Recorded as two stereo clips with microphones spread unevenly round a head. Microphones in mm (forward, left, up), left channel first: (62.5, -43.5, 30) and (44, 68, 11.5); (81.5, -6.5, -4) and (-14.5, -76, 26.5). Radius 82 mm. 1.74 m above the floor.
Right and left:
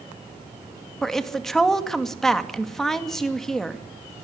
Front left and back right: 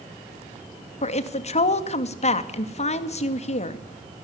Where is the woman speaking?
5° left, 2.5 m.